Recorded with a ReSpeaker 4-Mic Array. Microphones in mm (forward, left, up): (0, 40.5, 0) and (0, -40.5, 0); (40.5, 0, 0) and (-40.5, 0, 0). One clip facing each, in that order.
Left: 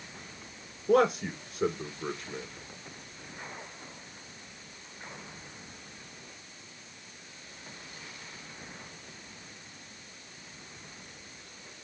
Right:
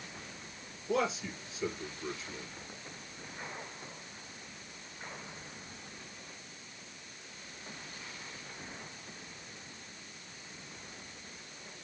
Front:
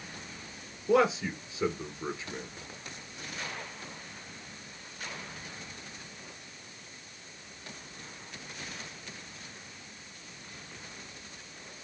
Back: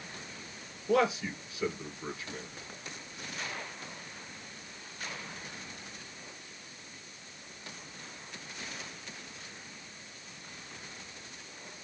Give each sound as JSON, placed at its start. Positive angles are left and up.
{"t": 0.9, "sound": "a man speaking", "azimuth_deg": 65, "distance_m": 3.0}